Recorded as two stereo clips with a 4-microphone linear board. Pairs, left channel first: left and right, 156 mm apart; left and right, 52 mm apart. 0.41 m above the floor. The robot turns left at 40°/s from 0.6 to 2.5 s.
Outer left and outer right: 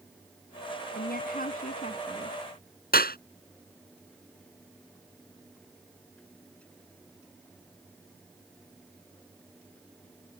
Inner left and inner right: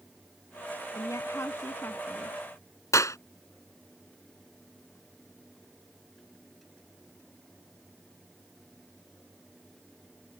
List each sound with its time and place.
0.9 s a woman speaking: 85° left; by 2.4 s 30° left
2.9 s a clap: 80° left